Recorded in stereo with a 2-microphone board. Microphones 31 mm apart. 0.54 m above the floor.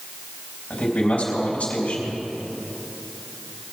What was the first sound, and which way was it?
A man speaking, 60° left (ahead or behind).